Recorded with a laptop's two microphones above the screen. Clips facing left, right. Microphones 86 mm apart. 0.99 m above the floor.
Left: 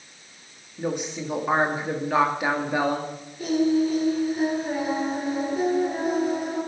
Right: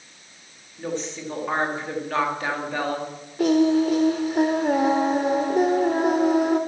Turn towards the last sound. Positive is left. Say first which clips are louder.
# right 3 dB
turn(degrees=-75)  # may be behind; listen again after turning